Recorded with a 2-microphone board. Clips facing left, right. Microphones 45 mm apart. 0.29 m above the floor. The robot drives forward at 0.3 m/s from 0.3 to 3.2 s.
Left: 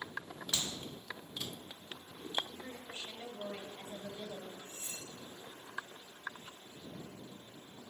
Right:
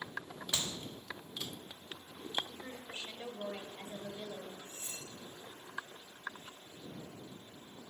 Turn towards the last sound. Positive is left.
turn(degrees=40)  # may be behind; listen again after turning